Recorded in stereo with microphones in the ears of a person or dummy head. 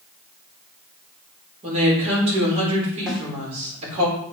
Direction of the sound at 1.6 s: 30° right (ahead or behind).